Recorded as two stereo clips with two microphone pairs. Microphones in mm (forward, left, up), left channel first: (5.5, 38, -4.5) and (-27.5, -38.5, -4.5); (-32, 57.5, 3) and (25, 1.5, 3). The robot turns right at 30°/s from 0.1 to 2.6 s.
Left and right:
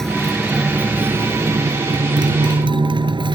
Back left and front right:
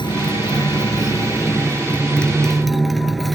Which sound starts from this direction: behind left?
A motorcycle, at 0.0 s.